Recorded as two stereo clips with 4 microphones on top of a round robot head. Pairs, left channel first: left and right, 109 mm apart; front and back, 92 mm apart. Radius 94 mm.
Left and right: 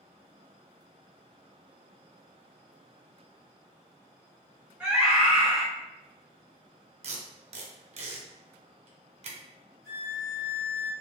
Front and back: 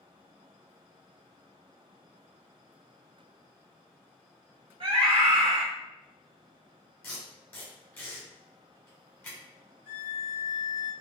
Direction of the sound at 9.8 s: 25° right.